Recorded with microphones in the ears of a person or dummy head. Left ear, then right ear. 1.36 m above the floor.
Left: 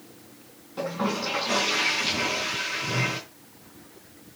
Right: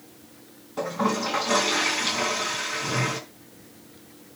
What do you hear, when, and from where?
0.8 s a toilet flushing: 15° right (ahead or behind), 4 m